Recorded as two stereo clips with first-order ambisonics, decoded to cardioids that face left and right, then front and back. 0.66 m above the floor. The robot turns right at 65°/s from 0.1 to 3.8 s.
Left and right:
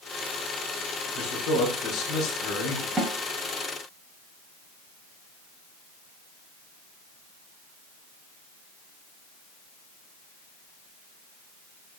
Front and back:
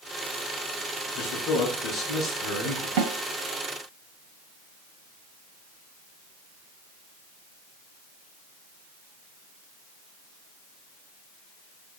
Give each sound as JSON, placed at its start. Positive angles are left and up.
{"t": 1.1, "sound": "a man speaking", "azimuth_deg": 40, "distance_m": 5.0}
{"t": 3.0, "sound": "a snare drum", "azimuth_deg": -170, "distance_m": 2.5}